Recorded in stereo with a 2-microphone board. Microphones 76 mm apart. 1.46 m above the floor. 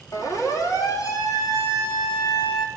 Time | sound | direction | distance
0.1 | a siren | 50° left (ahead or behind) | 4 m